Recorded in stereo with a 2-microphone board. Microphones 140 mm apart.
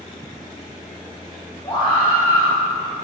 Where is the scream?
20° left (ahead or behind), 3 m.